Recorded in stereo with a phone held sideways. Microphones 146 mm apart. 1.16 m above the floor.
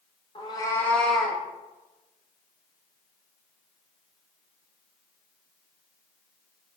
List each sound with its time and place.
0.3 s a cat meowing: 35° left (ahead or behind), 0.5 m; by 1.4 s 10° right (ahead or behind), 0.7 m